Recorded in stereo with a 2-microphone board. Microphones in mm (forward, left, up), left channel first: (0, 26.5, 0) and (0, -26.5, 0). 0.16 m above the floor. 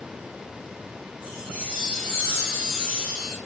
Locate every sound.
1.2 s a chime: 20° right (ahead or behind), 7.5 m